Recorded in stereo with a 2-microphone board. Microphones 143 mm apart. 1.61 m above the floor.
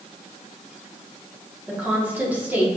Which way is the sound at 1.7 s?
10° right (ahead or behind).